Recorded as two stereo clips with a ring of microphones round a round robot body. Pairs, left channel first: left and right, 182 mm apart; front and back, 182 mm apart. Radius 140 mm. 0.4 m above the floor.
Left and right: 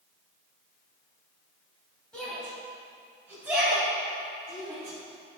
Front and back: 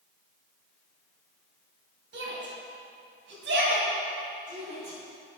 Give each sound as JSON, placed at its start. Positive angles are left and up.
{"t": 2.1, "sound": "a shout", "azimuth_deg": 175, "distance_m": 3.0}